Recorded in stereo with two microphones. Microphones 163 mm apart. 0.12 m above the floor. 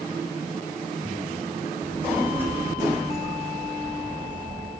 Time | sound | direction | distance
1.8 | a child speaking | 10° right (ahead or behind) | 6 m